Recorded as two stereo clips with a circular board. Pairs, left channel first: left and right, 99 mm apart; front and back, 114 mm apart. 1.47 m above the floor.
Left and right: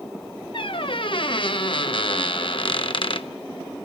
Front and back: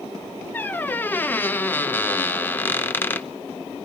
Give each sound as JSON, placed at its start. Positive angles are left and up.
{"t": 0.5, "sound": "a squeak", "azimuth_deg": 70, "distance_m": 0.8}